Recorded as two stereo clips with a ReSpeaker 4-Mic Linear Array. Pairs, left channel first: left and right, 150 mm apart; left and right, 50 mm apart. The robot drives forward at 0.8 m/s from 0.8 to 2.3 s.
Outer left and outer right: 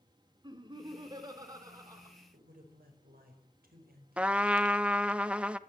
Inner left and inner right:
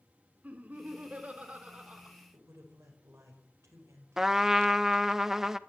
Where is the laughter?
30° right (ahead or behind), 3 m; by 2.1 s 20° right (ahead or behind), 4 m.